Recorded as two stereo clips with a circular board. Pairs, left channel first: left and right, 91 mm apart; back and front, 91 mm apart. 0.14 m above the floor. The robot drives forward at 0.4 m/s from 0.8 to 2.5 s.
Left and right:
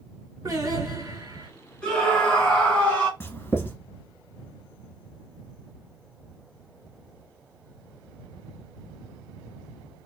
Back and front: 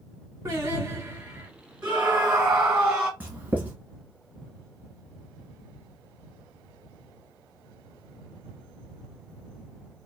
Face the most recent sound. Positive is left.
turn(degrees=55)